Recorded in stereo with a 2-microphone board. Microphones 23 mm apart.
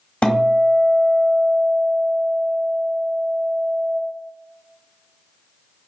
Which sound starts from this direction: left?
A guitar, at 0.2 s.